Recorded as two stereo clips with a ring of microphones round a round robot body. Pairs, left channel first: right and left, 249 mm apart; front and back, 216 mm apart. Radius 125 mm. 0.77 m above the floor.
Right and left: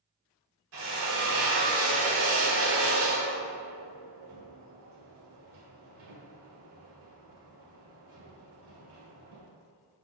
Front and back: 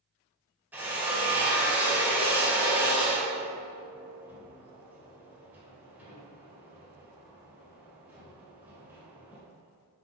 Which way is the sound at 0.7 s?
100° left.